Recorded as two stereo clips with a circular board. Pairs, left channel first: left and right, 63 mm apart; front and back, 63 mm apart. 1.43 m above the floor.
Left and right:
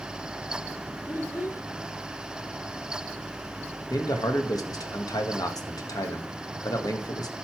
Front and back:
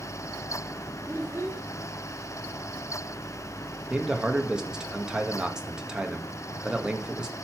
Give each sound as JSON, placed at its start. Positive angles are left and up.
{"t": 1.1, "sound": "a child speaking", "azimuth_deg": 125, "distance_m": 3.0}
{"t": 3.9, "sound": "a man speaking", "azimuth_deg": 100, "distance_m": 1.8}